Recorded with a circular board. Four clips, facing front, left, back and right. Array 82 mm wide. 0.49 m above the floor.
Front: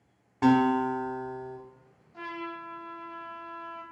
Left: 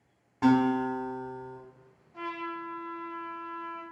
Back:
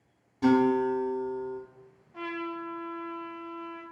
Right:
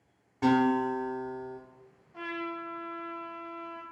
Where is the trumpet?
175° right, 0.7 m.